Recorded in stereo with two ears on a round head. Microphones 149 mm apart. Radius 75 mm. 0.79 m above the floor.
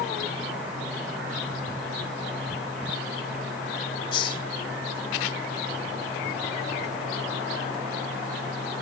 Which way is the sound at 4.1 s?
30° left (ahead or behind).